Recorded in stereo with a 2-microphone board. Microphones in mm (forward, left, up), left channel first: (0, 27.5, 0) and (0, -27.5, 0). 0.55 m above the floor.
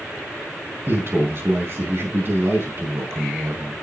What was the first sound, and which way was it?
A man speaking, 50° right (ahead or behind).